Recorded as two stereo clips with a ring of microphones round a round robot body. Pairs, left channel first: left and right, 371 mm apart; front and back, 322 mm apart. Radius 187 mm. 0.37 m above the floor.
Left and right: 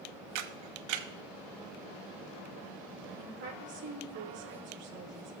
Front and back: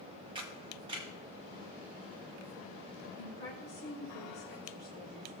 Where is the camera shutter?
105° right, 1.0 m.